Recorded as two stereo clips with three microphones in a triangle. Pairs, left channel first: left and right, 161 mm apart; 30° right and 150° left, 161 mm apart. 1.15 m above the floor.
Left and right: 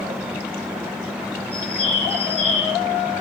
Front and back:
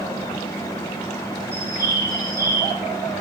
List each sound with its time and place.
1.5 s a bird: 135° right, 1.3 m